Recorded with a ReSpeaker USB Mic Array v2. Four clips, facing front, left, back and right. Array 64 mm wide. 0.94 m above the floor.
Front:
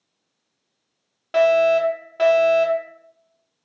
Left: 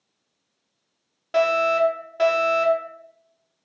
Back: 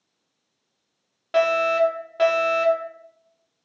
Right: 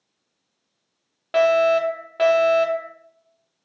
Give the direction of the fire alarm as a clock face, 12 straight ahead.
3 o'clock.